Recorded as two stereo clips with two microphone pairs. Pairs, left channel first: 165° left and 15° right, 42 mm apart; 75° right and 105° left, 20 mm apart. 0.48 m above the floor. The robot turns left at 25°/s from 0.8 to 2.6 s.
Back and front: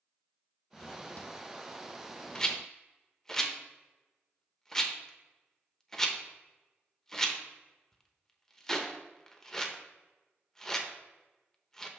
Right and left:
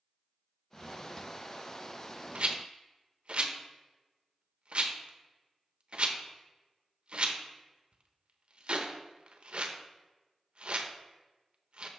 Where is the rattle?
100° left, 0.8 m; by 11.9 s 95° left, 0.8 m.